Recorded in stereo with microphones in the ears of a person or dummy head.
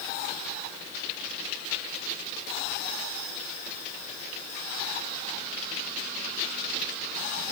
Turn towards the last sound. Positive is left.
No sound to turn to.